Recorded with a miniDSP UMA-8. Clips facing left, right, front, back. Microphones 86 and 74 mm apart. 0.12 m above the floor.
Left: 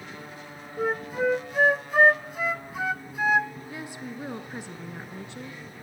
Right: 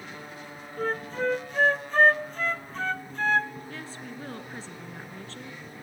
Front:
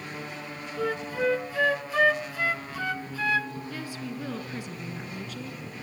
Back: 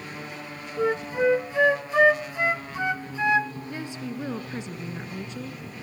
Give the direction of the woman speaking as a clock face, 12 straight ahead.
7 o'clock.